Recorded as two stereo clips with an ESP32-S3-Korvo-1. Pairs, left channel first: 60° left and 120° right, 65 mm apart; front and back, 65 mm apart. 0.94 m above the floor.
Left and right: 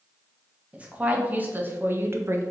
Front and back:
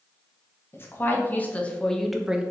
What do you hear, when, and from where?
0.7 s a woman speaking: 50° right, 1.1 m; by 2.4 s 110° right, 0.5 m